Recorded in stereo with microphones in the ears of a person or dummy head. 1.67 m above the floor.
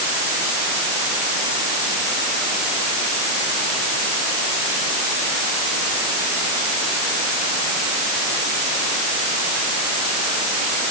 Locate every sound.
Only background noise.